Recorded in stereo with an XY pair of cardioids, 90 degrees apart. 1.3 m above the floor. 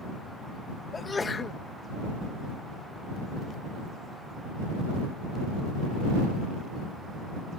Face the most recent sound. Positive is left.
turn(degrees=35)